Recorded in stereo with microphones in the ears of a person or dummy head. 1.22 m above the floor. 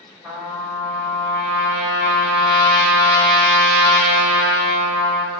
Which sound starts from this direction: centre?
A trumpet, at 0.2 s.